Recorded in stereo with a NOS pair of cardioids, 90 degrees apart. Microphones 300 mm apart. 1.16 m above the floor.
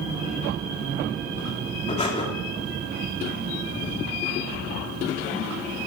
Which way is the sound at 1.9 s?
20° left.